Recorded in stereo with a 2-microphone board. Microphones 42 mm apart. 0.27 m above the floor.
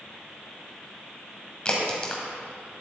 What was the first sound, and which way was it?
A crack, 25° left (ahead or behind).